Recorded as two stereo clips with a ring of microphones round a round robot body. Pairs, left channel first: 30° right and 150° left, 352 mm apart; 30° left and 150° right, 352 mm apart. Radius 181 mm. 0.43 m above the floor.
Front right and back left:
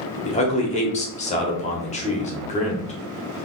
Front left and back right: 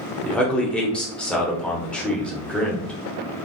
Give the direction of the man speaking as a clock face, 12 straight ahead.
2 o'clock.